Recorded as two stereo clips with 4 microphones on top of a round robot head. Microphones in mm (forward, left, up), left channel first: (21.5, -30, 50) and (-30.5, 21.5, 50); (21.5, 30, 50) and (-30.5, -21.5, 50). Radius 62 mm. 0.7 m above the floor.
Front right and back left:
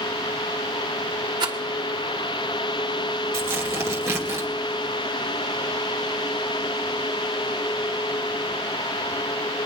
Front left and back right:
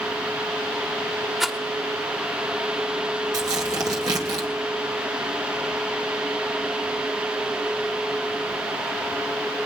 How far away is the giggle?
I don't hear a giggle.